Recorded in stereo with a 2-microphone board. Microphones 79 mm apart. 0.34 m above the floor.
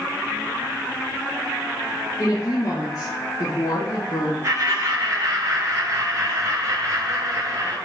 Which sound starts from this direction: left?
A woman speaking, at 2.2 s.